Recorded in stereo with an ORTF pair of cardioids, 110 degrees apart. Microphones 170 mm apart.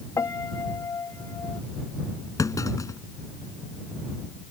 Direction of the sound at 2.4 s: 20° left.